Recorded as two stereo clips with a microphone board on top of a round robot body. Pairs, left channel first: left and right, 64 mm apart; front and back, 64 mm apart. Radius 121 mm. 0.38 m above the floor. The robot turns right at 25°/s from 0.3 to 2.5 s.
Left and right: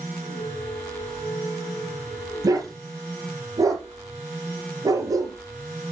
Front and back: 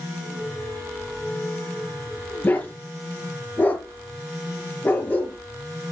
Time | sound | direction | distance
2.4 | a dog barking | 60° right | 3.5 m